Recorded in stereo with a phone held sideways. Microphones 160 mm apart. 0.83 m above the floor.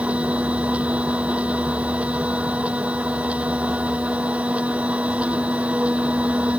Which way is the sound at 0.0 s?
10° right (ahead or behind).